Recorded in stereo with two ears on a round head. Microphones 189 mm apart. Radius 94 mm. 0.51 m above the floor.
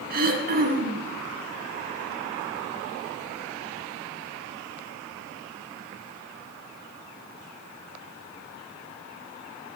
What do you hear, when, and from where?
0.1 s throat clearing: 45° right (ahead or behind), 2.5 m